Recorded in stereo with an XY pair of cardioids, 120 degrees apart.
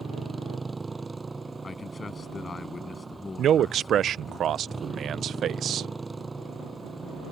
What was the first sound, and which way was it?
A motorcycle, 20° right.